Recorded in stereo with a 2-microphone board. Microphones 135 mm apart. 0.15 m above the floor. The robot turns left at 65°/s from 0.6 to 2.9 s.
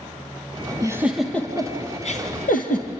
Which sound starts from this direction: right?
A giggle, at 0.8 s.